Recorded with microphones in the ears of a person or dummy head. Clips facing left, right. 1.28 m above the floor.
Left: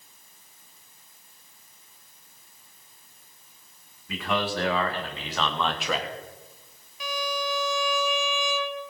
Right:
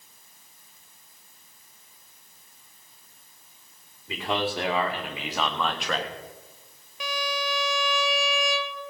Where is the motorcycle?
I don't hear a motorcycle.